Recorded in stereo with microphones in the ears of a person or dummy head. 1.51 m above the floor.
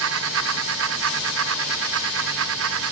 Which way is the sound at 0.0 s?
65° right (ahead or behind).